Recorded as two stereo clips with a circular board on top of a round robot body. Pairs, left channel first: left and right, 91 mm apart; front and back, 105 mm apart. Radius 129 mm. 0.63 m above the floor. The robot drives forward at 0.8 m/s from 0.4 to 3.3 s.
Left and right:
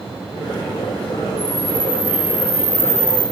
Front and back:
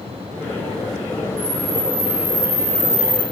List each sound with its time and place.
1.4 s a camera shutter: 175° left, 1.2 m